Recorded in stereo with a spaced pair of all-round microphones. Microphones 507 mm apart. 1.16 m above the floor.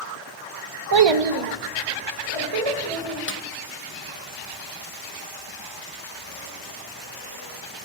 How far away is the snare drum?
About 0.5 m.